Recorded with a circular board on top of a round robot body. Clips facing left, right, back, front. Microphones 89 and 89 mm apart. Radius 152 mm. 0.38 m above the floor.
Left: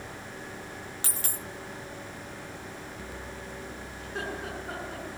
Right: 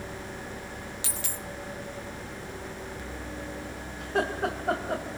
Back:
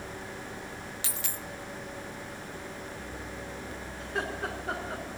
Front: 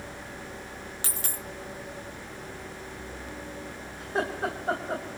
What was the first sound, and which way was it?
A dropped coin, 45° left.